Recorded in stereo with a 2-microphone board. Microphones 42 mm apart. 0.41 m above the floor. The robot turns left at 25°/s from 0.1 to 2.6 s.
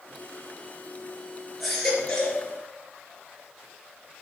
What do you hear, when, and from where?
1.6 s a baby crying: centre (ahead or behind), 3.5 m; by 2.4 s 20° left (ahead or behind), 3.5 m